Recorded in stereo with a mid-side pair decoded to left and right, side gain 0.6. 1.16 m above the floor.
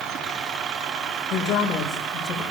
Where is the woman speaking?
50° left, 3.5 m; by 2.4 s 45° left, 4 m.